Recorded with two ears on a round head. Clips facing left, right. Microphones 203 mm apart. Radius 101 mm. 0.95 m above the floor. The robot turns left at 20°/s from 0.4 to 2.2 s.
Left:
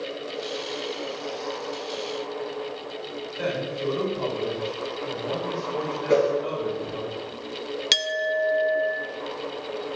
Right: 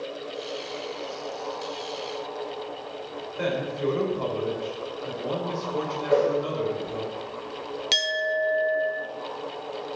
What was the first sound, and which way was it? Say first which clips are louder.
A man speaking: right 1 dB; 35° right (ahead or behind).